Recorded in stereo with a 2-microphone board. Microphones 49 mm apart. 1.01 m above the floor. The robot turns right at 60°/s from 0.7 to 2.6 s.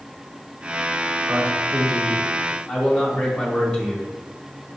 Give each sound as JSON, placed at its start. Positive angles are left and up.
{"t": 1.3, "sound": "a man speaking", "azimuth_deg": -85, "distance_m": 1.4}